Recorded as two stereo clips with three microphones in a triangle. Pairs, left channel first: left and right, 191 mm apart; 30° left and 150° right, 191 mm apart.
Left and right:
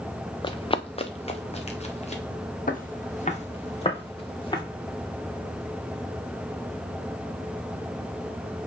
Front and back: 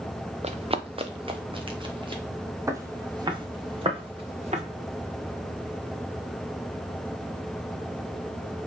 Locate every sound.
0.4 s running footsteps: 155° left, 0.6 m; by 2.2 s 145° left, 2.0 m
2.7 s footsteps: 135° left, 1.6 m; by 4.6 s 155° left, 3 m